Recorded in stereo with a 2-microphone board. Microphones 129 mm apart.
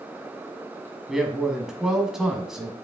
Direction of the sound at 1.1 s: 5° right (ahead or behind).